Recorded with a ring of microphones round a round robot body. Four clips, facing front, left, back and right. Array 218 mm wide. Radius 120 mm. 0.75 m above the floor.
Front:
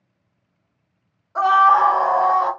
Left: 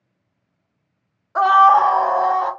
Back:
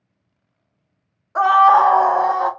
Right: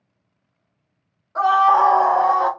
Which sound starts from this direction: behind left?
A scream, at 1.4 s.